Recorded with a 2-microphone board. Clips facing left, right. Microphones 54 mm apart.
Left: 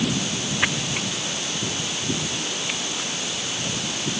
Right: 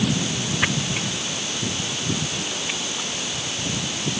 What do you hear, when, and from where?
Only background noise.